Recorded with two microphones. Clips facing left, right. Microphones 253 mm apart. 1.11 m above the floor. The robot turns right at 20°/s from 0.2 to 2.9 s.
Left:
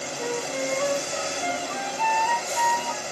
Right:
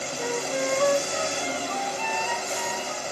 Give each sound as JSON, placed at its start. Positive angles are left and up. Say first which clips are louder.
{"t": 0.2, "sound": "a flute", "louder": "right 1 dB", "azimuth_deg": -100, "distance_m": 0.8}